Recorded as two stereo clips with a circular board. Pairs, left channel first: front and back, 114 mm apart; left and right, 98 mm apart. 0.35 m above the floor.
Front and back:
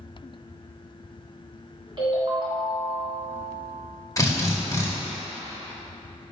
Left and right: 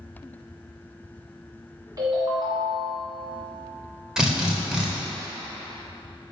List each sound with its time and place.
2.0 s a ringtone: 145° right, 1.8 m
4.2 s a drill: 15° right, 0.7 m